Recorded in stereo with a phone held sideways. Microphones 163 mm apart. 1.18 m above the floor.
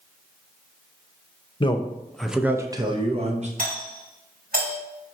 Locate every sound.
1.6 s a man speaking: 30° left (ahead or behind), 0.8 m; by 3.5 s 45° right (ahead or behind), 1.1 m
3.6 s a doorbell: 60° right (ahead or behind), 3 m